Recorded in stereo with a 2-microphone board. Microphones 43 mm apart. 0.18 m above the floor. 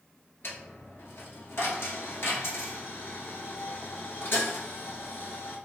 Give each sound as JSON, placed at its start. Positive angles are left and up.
{"t": 0.4, "sound": "a dropped coin", "side_deg": 70, "distance_m": 1.2}